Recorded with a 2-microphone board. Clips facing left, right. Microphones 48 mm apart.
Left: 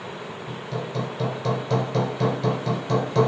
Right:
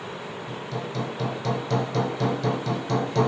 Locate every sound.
0.5 s hammering: 10° left (ahead or behind), 4.5 m